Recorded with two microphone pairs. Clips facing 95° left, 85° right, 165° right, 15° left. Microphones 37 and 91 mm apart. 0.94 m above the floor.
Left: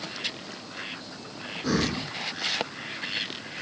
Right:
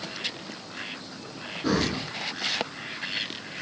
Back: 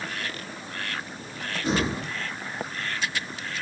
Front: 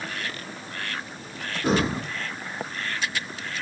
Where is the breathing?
20° right, 0.8 m.